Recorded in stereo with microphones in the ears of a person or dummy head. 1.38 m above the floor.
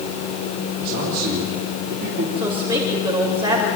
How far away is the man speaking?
About 4.5 m.